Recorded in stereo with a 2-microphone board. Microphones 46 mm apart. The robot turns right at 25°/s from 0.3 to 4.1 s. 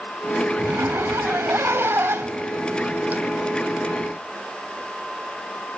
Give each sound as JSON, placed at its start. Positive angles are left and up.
{"t": 0.6, "sound": "a zipper", "azimuth_deg": -105, "distance_m": 0.6}